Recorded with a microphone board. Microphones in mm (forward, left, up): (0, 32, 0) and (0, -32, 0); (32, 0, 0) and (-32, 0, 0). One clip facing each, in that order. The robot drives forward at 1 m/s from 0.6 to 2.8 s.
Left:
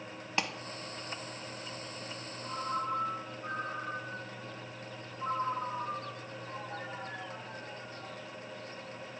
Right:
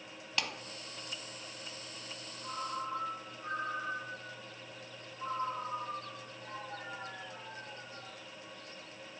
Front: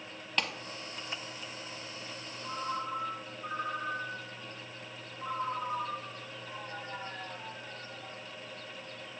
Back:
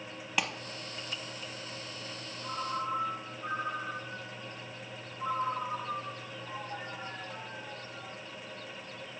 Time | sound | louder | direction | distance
0.4 | a clap | left 3 dB, back 1 dB | 110° left | 0.9 m
2.4 | a ringtone | left 4 dB, back 1 dB | 165° right | 4 m